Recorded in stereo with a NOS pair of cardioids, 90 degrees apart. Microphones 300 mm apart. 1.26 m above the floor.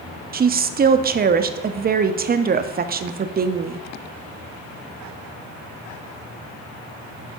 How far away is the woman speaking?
About 0.6 m.